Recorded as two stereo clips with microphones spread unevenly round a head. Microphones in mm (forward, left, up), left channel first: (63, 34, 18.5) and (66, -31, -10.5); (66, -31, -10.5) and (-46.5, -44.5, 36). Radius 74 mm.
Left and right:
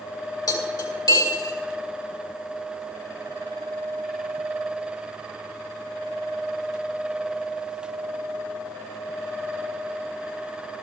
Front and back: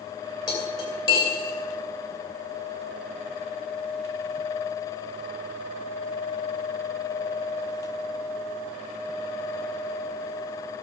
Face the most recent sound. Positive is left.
turn(degrees=75)